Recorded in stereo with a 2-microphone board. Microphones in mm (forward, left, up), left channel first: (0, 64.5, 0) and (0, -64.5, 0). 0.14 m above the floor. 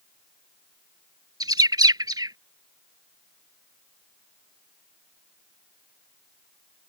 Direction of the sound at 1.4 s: 30° right (ahead or behind).